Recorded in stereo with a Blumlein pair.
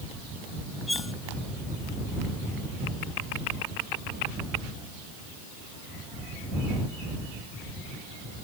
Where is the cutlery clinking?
10° left.